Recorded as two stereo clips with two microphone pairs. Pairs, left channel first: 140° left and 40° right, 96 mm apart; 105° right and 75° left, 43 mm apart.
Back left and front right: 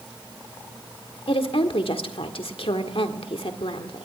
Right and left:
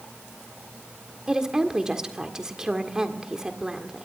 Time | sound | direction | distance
1.3 | a woman speaking | 150° left | 1.7 m